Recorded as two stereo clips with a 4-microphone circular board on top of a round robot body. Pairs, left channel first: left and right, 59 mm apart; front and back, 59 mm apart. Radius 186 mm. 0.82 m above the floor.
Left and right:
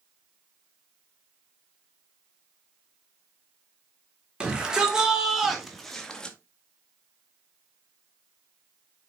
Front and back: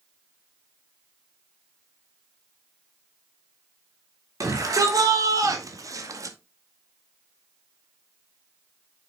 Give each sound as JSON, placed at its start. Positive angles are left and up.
{"t": 4.4, "sound": "a shout", "azimuth_deg": -165, "distance_m": 3.5}